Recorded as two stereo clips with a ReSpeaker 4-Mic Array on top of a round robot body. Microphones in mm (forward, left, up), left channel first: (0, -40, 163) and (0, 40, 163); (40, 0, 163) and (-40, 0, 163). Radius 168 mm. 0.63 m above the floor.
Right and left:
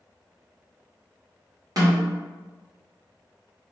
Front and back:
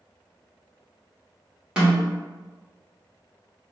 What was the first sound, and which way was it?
A snare drum, 105° left.